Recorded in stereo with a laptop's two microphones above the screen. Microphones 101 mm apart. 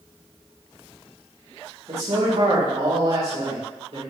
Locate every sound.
1.9 s a man speaking: 70° right (ahead or behind), 3 m